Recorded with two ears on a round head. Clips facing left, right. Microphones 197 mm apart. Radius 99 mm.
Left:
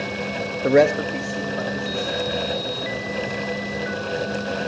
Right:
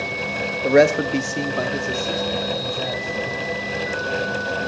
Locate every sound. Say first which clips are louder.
0.6 s a man speaking: right 1 dB; 15° left (ahead or behind), 0.5 m; by 3.3 s 85° right, 3.5 m